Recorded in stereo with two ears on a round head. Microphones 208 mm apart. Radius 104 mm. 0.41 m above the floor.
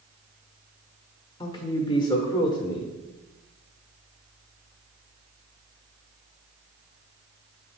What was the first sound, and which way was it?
A man speaking, 20° left (ahead or behind).